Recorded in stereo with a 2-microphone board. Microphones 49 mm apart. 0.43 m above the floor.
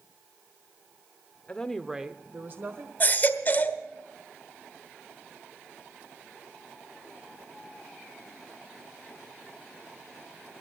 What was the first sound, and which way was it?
A woman speaking, 20° left (ahead or behind).